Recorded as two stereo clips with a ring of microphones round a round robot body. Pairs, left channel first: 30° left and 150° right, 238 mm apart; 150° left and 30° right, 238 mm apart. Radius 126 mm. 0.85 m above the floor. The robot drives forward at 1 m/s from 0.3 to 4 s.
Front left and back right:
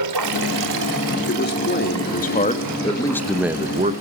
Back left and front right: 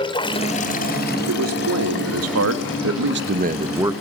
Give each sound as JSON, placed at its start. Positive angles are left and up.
{"t": 0.0, "sound": "running water", "azimuth_deg": -140, "distance_m": 1.0}
{"t": 1.3, "sound": "a man speaking", "azimuth_deg": -15, "distance_m": 2.5}